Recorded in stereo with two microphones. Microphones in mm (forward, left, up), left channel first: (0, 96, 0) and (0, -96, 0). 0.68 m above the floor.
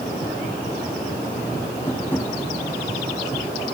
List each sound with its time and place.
1.9 s tapping: 10° left (ahead or behind), 6.5 m